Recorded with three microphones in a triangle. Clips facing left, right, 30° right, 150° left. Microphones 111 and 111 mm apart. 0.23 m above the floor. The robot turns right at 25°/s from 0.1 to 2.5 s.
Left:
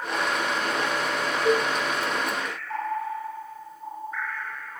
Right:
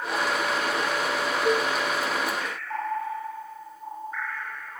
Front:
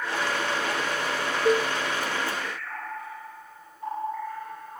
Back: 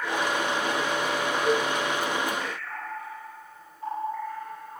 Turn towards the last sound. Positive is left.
turn(degrees=40)